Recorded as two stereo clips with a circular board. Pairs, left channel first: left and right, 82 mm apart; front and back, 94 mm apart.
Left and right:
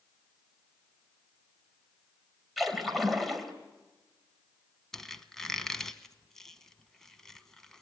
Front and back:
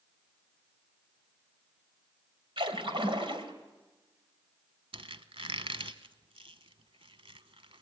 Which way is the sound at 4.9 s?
175° left.